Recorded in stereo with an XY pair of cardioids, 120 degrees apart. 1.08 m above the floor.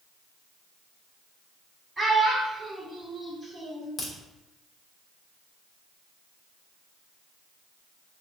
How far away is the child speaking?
About 1.6 m.